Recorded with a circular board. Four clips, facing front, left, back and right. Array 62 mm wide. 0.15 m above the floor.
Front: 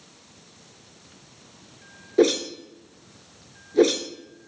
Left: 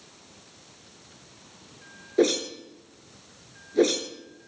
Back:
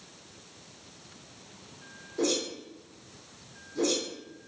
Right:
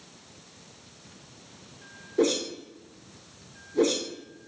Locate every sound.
2.2 s a whoosh: 30° left, 0.6 m